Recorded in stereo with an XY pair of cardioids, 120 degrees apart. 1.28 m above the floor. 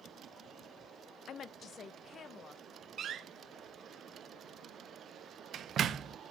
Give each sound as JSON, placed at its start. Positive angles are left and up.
{"t": 1.3, "sound": "a woman speaking", "azimuth_deg": 55, "distance_m": 0.5}
{"t": 3.0, "sound": "a door slam", "azimuth_deg": -50, "distance_m": 0.6}